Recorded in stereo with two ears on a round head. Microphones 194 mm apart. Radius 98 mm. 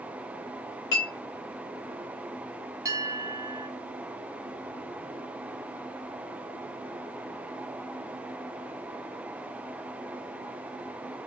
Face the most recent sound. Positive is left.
turn(degrees=-15)  # may be behind; listen again after turning